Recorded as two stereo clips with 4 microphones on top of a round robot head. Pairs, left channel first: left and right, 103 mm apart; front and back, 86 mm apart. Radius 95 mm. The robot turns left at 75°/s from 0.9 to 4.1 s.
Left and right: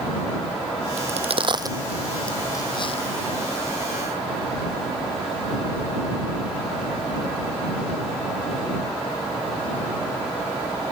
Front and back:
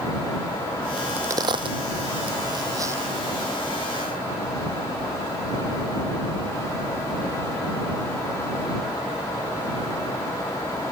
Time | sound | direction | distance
1.0 | a crack | 90° right | ?